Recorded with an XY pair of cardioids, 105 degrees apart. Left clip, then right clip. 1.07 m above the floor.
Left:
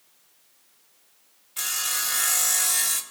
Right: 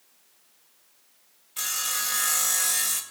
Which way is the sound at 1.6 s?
5° right.